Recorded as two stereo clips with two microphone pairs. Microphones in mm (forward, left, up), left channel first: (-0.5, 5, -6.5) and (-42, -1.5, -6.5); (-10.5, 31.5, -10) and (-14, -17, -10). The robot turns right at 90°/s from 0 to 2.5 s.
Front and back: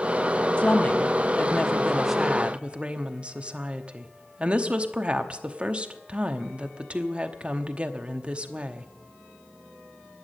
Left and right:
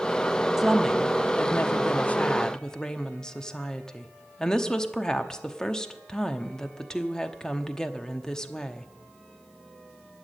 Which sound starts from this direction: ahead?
A woman speaking, at 0.6 s.